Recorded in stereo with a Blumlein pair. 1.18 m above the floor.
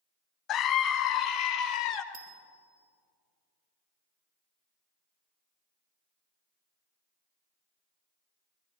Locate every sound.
0.5 s a scream: 30° left, 0.6 m
2.1 s a bicycle bell: 50° right, 3 m